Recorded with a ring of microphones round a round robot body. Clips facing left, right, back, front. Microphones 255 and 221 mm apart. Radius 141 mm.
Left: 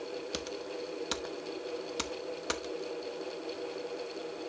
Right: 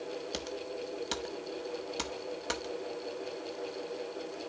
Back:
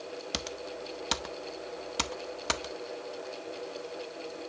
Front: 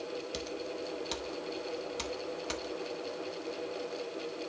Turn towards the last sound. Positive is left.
turn(degrees=175)